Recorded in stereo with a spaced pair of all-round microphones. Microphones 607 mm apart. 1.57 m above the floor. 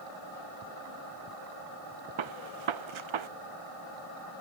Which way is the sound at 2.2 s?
55° right (ahead or behind).